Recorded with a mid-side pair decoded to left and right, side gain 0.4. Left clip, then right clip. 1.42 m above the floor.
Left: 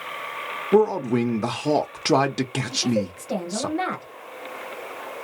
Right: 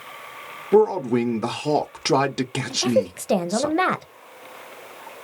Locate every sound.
0.7 s a man speaking: 5° left, 0.6 m
2.7 s a woman speaking: 65° right, 0.6 m